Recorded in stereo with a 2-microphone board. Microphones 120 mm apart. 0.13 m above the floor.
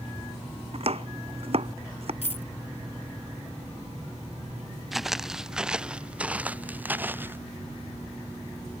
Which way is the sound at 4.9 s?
Centre (ahead or behind).